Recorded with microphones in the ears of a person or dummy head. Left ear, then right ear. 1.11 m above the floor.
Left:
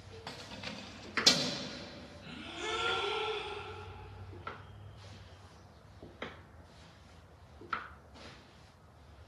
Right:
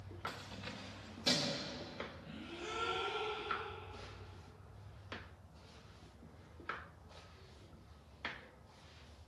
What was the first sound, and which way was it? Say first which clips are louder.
Keys jangling: left 3 dB; 5° right (ahead or behind).